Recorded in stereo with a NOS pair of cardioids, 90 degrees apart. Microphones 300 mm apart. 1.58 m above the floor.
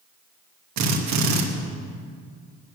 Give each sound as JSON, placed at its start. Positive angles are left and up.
{"t": 0.8, "sound": "a drill", "azimuth_deg": -60, "distance_m": 2.5}